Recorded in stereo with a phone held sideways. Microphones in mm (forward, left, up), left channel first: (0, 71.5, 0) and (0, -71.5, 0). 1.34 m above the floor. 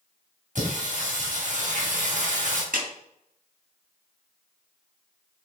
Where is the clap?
85° right, 2.5 m.